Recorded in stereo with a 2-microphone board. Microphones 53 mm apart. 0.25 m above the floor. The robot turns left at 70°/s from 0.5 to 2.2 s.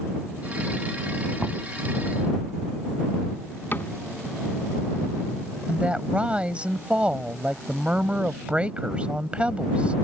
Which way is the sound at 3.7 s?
45° left (ahead or behind).